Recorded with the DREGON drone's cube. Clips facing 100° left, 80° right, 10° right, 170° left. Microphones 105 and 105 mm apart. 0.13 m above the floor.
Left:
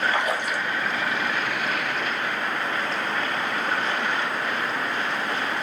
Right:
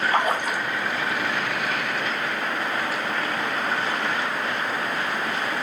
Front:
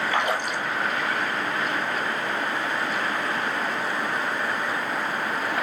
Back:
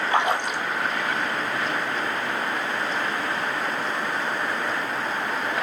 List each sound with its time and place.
0.1 s a splash: 120° right, 1.5 m